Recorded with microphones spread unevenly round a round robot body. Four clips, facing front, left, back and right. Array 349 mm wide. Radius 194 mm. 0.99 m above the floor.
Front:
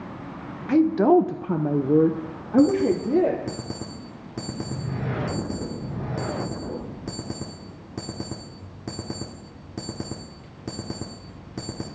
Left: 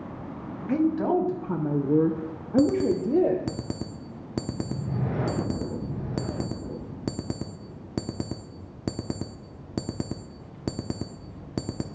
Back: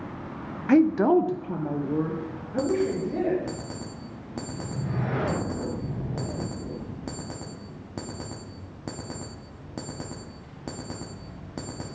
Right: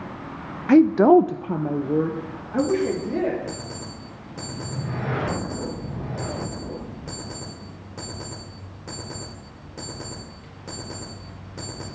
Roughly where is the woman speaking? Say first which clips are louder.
Right 10 dB, front 1 dB; right.